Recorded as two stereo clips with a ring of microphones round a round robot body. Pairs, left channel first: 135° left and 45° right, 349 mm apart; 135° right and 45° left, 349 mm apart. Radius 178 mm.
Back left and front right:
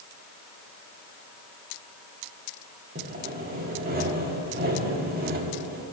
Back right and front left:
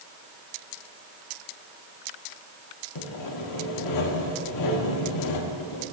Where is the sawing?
110° right, 1.2 m.